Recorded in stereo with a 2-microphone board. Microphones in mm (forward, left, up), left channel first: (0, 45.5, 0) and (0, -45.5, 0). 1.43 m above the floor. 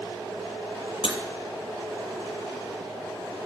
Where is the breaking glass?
70° left (ahead or behind), 4.5 m.